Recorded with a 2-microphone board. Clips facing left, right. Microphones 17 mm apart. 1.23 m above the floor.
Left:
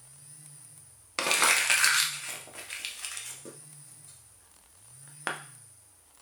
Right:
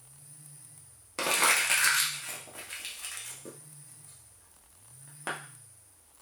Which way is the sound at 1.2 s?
30° left (ahead or behind).